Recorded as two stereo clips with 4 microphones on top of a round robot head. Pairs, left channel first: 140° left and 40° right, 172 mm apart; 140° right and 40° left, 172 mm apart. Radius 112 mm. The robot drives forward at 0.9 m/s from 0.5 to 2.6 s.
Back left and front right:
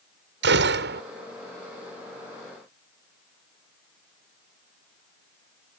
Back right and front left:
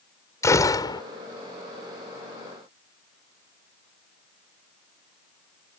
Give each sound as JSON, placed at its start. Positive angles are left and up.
{"t": 0.4, "sound": "a gunshot", "azimuth_deg": -65}